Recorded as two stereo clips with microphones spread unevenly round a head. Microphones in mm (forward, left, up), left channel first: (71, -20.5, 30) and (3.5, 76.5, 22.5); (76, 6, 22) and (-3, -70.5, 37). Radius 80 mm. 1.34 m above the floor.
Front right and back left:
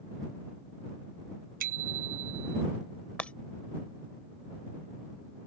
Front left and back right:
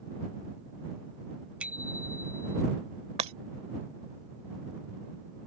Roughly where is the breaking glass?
Behind right.